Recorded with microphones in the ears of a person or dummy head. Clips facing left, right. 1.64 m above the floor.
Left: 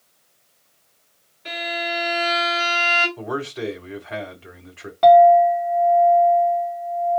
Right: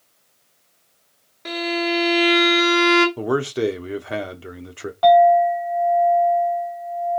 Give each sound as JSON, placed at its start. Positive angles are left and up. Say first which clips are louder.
{"t": 1.4, "sound": "a violin", "louder": "right 6 dB", "side_deg": -60, "distance_m": 1.9}
{"t": 3.2, "sound": "a man speaking", "louder": "right 7 dB", "side_deg": -50, "distance_m": 0.7}
{"t": 5.0, "sound": "a clink", "louder": "left 2 dB", "side_deg": 30, "distance_m": 1.8}